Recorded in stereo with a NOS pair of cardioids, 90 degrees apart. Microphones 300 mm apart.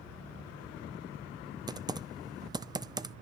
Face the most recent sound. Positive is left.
turn(degrees=-15)